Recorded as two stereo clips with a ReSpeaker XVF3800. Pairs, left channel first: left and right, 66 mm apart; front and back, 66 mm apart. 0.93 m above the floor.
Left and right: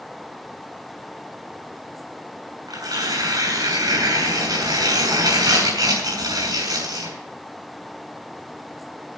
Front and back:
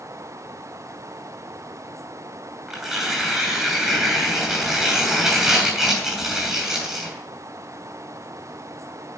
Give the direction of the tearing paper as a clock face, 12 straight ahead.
3 o'clock.